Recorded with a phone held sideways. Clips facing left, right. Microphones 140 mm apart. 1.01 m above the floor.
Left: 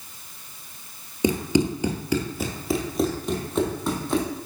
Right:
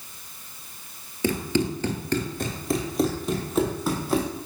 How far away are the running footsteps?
About 1.0 m.